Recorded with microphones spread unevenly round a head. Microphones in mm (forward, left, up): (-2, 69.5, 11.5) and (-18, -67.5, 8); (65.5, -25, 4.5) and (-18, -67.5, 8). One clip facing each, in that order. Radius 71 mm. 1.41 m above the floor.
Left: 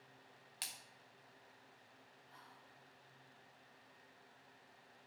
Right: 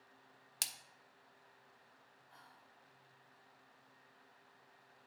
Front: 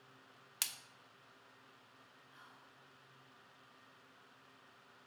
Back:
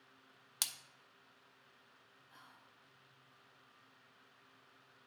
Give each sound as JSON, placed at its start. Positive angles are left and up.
{"t": 0.6, "sound": "a splash", "azimuth_deg": -95, "distance_m": 0.6}
{"t": 2.3, "sound": "whispering", "azimuth_deg": 175, "distance_m": 1.5}